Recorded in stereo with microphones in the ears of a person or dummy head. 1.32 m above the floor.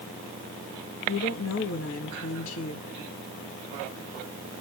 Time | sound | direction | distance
1.1 | a woman speaking | 80° left | 1.2 m